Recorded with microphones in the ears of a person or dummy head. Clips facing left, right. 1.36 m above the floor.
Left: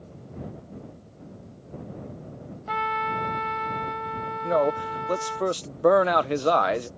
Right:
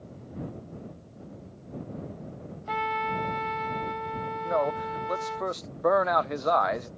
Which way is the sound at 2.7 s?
Centre (ahead or behind).